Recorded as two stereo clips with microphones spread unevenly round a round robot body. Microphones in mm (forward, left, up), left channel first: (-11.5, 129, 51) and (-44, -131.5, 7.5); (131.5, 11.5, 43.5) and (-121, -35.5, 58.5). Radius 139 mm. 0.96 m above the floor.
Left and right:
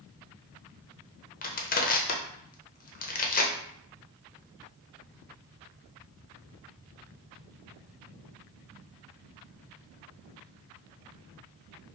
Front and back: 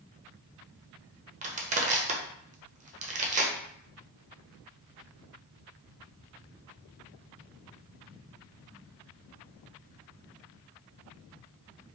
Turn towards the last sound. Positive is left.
turn(degrees=140)